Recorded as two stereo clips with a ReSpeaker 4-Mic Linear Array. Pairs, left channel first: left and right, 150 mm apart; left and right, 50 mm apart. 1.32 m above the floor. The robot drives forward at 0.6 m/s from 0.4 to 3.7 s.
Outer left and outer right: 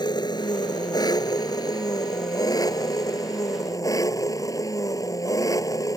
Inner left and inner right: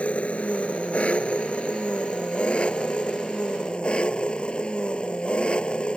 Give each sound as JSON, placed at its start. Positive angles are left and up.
{"t": 0.0, "sound": "an engine running", "side_deg": 30}